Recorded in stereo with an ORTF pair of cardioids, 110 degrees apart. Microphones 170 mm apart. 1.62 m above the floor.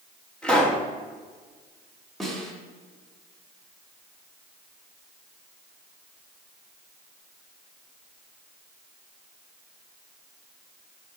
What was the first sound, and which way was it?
A pop, 5° left.